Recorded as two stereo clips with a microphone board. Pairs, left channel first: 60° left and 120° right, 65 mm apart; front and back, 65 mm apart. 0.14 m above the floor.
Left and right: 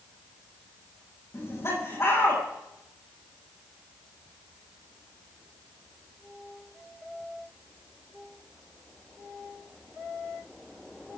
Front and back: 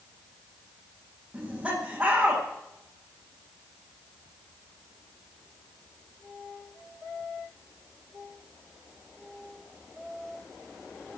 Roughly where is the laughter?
Left.